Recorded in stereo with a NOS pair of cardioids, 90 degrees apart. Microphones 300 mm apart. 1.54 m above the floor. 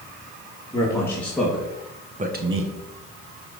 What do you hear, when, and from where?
0.7 s a man speaking: 10° left, 3 m; by 2.7 s 55° right, 1.4 m